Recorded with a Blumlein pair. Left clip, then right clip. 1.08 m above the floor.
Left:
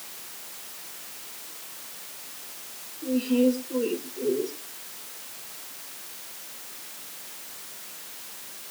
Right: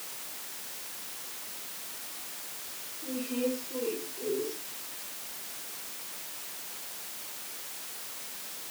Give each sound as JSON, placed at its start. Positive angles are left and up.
{"t": 3.0, "sound": "a woman speaking", "azimuth_deg": 65, "distance_m": 3.0}